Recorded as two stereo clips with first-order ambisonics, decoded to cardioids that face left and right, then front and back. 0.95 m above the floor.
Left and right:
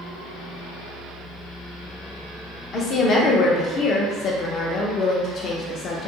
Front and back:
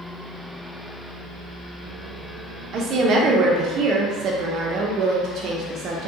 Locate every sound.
2.7 s a woman speaking: 145° left, 0.5 m